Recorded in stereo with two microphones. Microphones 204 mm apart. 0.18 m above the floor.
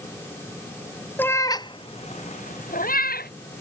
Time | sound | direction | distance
1.2 | a cat meowing | 10° left (ahead or behind) | ?